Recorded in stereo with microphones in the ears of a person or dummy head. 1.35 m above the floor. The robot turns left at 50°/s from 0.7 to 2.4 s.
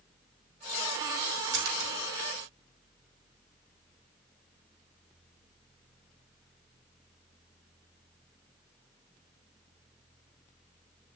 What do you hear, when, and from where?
1.5 s a splash: 65° right (ahead or behind), 4 m; by 1.9 s 85° right, 4 m